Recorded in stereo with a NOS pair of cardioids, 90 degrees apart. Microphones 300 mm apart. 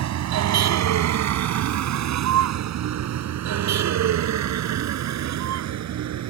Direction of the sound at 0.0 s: 70° right.